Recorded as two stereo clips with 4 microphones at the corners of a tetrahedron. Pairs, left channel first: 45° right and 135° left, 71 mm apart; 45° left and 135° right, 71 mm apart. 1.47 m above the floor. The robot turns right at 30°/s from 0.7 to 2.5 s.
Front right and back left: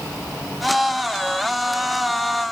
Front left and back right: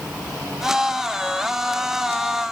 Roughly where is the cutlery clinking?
No cutlery clinking in this recording.